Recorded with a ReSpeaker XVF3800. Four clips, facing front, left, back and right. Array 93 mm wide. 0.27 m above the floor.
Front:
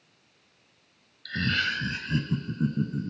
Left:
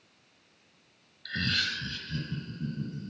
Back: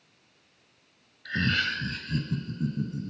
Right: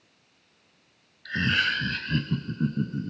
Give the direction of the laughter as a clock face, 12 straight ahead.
5 o'clock.